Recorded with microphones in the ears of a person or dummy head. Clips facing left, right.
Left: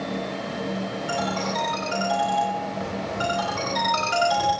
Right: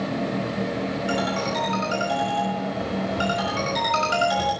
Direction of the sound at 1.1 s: 30° right (ahead or behind).